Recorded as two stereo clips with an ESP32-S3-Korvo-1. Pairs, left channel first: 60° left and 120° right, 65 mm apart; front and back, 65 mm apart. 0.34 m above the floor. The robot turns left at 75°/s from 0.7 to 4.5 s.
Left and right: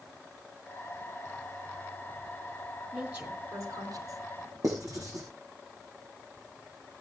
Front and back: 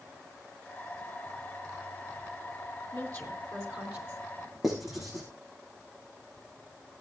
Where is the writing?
95° right, 5.5 m.